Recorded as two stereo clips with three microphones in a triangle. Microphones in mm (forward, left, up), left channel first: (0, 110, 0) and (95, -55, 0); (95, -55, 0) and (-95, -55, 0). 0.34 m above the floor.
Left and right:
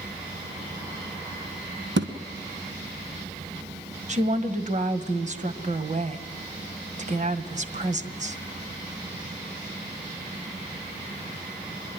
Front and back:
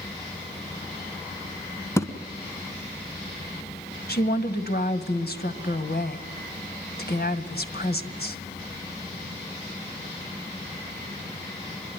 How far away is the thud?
About 1.7 m.